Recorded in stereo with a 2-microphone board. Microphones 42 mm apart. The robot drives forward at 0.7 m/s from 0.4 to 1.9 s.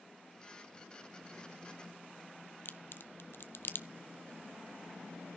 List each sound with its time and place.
2.6 s a crack: 60° left (ahead or behind), 0.7 m